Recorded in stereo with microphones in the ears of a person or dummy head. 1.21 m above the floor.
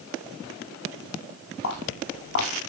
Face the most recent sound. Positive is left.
turn(degrees=55)  # may be behind; listen again after turning